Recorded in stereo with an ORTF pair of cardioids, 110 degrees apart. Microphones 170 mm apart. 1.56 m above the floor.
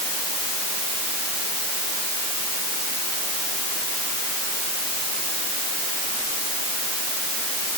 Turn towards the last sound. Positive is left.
No sound to turn to.